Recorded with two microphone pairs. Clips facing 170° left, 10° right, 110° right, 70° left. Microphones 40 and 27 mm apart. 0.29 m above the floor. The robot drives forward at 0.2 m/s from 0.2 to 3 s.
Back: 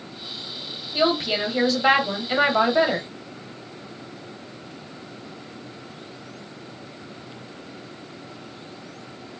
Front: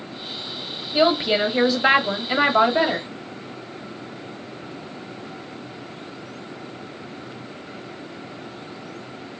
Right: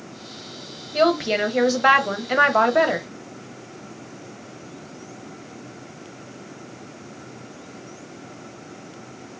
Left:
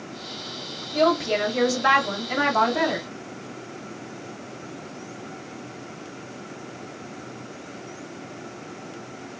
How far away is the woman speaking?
About 1.1 m.